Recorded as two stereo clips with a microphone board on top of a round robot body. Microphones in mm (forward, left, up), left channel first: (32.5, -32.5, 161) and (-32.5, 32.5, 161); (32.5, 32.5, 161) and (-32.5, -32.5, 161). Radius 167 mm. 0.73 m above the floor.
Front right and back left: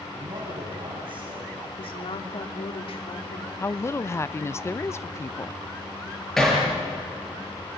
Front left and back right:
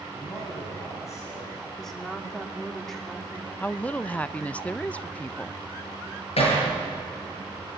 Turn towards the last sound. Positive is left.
turn(degrees=40)